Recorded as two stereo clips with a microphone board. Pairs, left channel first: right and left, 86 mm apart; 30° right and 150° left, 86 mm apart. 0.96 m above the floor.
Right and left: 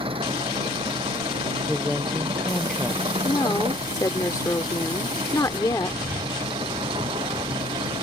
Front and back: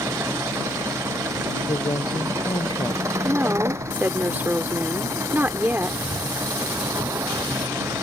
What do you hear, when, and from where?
0.0 s an engine running: 90° left
1.7 s a woman speaking: 5° right
3.2 s a woman speaking: 140° right